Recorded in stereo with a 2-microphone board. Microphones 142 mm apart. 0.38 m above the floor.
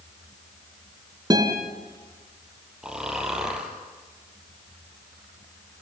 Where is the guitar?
30° right (ahead or behind), 4.5 m.